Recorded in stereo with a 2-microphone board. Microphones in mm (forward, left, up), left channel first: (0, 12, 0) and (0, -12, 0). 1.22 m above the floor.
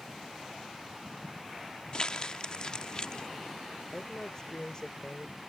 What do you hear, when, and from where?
1.9 s crumpling: 40° left (ahead or behind)
3.9 s a woman speaking: 35° left (ahead or behind)